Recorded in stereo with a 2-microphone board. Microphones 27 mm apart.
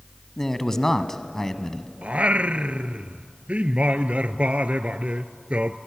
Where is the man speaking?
15° left (ahead or behind), 1.1 m.